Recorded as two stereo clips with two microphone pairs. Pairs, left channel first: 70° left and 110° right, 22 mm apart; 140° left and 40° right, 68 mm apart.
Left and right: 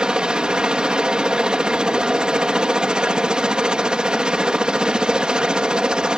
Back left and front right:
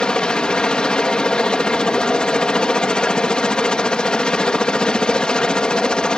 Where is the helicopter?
145° right.